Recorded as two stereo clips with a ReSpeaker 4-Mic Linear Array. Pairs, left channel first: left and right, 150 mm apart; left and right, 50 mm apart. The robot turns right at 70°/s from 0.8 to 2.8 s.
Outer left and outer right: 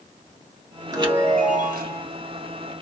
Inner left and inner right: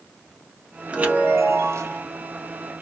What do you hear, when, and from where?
0.9 s a chime: 155° right, 1.3 m; by 2.0 s 75° right, 1.3 m